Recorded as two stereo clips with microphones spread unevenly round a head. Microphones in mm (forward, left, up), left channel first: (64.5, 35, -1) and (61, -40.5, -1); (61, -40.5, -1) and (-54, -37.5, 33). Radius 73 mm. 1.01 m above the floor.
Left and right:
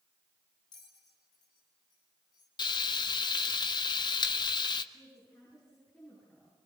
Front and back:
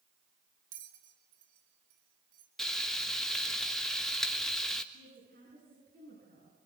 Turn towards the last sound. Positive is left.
turn(degrees=170)